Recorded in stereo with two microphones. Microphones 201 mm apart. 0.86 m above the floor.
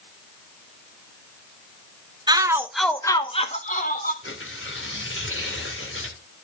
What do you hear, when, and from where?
2.3 s a shout: 20° right (ahead or behind), 1.1 m; by 4.1 s 40° left (ahead or behind), 1.5 m
4.2 s tearing paper: 70° left (ahead or behind), 2.5 m